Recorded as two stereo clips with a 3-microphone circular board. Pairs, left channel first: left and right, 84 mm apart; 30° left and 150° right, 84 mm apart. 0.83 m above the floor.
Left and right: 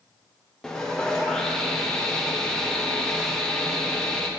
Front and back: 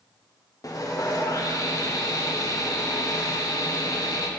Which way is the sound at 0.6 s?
10° left.